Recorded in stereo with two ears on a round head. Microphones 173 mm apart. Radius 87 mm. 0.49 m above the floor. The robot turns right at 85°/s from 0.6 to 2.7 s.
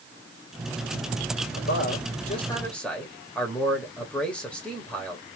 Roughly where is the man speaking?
Left.